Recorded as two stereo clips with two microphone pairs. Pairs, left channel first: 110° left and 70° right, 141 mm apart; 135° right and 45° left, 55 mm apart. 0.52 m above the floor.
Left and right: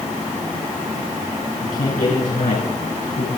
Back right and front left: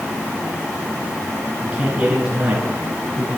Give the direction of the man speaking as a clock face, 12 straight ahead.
8 o'clock.